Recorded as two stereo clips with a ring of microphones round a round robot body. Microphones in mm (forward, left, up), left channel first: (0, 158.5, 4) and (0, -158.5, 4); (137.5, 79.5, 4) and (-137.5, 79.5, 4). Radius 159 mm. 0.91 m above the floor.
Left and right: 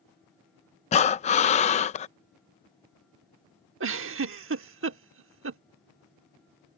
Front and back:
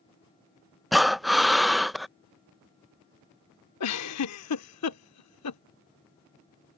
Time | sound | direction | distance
0.9 | breathing | 90° left | ?
3.8 | a giggle | 40° right | ?